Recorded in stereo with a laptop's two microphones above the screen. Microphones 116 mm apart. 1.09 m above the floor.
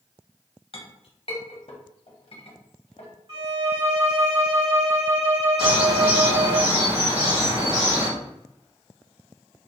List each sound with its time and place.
0.7 s a clink: 55° left (ahead or behind), 0.7 m
3.3 s a violin: 45° right (ahead or behind), 1.9 m
5.6 s a bird: 55° right (ahead or behind), 1.2 m